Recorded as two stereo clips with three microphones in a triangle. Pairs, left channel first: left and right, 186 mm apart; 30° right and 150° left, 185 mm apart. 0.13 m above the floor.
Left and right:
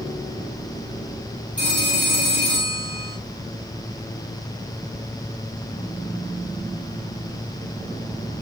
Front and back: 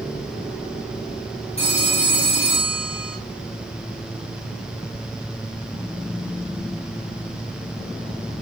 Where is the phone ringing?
90° right, 7 m.